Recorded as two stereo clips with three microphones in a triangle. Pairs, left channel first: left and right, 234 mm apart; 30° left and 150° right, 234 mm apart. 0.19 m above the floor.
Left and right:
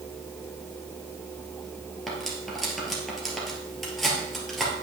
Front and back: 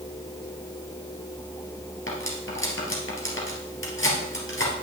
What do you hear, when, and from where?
2.1 s cutlery clinking: straight ahead, 2.5 m